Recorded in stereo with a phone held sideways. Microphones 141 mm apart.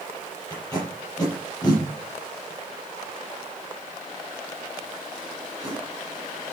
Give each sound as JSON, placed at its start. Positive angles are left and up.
{"t": 0.5, "sound": "tape being pulled", "side_deg": 25, "distance_m": 6.0}